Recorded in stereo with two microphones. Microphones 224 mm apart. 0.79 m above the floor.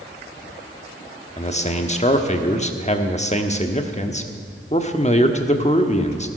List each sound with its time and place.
1.4 s a man speaking: 30° left (ahead or behind), 1.3 m